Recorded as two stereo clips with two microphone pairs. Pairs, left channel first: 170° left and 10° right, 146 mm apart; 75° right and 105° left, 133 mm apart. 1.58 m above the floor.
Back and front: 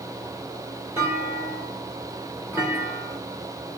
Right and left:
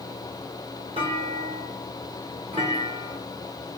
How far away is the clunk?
About 4.5 m.